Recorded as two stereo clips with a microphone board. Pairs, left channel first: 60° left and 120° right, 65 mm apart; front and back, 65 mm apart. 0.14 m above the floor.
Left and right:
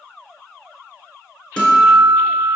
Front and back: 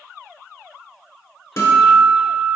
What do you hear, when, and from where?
1.6 s a guitar: 5° right, 1.0 m